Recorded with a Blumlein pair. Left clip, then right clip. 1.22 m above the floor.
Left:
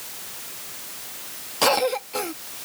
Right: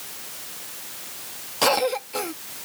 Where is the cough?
Straight ahead.